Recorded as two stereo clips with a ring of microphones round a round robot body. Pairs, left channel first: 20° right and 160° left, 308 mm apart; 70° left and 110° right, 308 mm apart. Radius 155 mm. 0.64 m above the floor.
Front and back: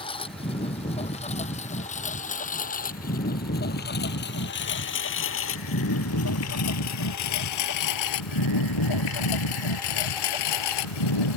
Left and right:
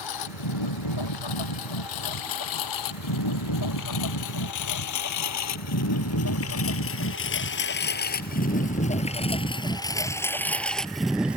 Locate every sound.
0.0 s a lawn mower: 50° left; by 11.4 s 25° right